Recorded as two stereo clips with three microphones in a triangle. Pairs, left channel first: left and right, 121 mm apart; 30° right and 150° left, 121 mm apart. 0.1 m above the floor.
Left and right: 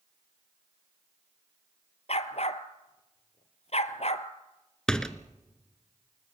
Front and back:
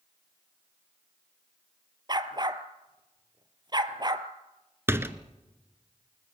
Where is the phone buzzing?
No phone buzzing in this recording.